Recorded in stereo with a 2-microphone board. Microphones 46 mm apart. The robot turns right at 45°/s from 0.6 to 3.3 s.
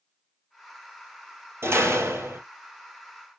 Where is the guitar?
I don't hear a guitar.